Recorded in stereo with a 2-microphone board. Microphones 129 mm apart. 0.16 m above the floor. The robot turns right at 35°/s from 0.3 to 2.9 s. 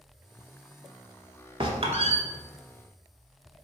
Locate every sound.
1.6 s a squeak: 45° right (ahead or behind), 0.6 m; by 2.2 s 60° right (ahead or behind), 0.6 m